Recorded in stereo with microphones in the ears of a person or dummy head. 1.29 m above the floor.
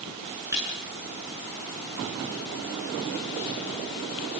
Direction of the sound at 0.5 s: 20° right (ahead or behind).